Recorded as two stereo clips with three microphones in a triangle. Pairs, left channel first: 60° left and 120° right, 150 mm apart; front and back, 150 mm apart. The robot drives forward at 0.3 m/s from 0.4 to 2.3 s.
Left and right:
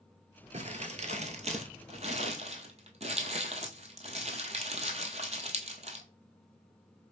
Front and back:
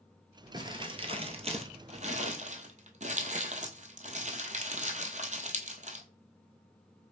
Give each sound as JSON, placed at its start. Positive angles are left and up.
{"t": 0.5, "sound": "crumpling", "azimuth_deg": -130, "distance_m": 0.7}